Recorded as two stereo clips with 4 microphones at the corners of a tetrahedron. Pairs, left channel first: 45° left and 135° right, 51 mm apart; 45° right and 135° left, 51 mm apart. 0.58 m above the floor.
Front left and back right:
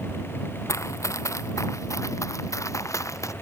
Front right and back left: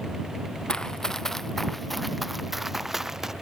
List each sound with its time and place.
0.7 s running footsteps: 30° left; by 3.3 s 55° left